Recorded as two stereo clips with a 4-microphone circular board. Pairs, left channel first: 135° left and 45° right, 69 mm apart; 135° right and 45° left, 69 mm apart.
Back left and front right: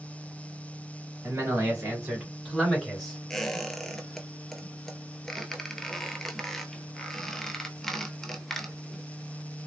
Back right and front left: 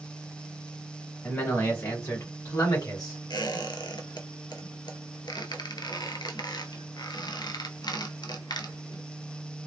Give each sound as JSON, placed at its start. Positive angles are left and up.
{"t": 1.2, "sound": "a man speaking", "azimuth_deg": -80, "distance_m": 1.4}
{"t": 3.3, "sound": "a squeak", "azimuth_deg": -140, "distance_m": 0.5}